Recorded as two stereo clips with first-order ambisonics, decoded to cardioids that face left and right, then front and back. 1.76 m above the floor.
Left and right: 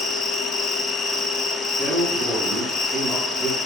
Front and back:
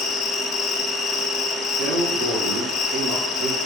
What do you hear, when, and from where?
0.0 s an insect: 45° left, 1.6 m
1.8 s a man speaking: 170° right, 2 m